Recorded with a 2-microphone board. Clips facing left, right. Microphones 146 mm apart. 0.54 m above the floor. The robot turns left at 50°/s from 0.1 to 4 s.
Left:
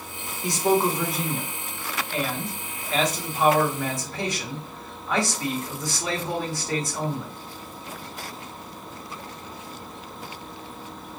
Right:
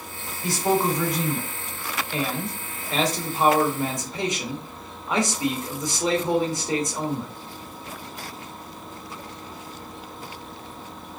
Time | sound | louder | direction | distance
0.4 | a man speaking | left 1 dB | 40° left | 1.0 m